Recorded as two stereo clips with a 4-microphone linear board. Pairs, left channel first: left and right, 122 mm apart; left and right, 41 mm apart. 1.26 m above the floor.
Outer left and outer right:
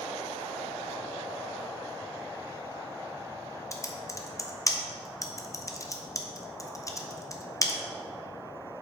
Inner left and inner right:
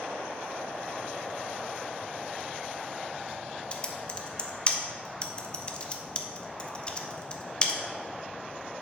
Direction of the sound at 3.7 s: 25° left (ahead or behind).